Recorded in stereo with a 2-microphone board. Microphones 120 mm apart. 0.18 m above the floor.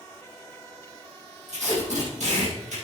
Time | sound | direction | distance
1.5 | tape being pulled | 75° right (ahead or behind) | 5.5 m